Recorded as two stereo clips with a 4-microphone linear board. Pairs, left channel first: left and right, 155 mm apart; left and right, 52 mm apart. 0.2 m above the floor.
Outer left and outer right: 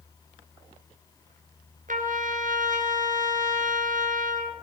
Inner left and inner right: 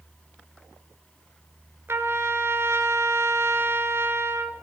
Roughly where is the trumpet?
Right.